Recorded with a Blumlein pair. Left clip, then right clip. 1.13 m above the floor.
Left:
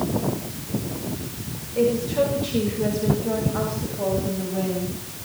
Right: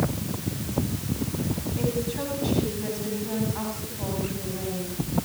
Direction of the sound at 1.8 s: 50° left.